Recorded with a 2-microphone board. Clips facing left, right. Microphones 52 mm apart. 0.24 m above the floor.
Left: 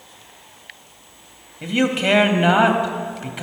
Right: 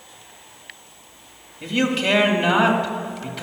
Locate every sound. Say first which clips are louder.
1.6 s a man speaking: left 2 dB; 20° left (ahead or behind), 0.9 m